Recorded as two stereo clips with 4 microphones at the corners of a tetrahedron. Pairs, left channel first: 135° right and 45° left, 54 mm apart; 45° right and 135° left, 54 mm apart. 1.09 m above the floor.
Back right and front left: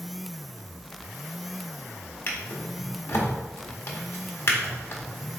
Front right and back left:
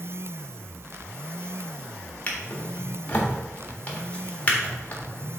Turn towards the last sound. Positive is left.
turn(degrees=-105)